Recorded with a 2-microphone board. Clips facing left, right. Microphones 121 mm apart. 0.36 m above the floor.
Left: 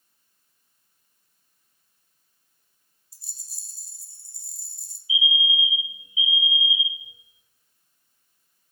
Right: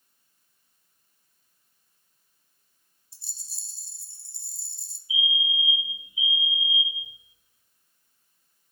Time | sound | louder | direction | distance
3.1 | a rattle | right 1 dB | 30° right (ahead or behind) | 0.7 m
5.1 | a fire alarm | left 3 dB | 5° left (ahead or behind) | 2.5 m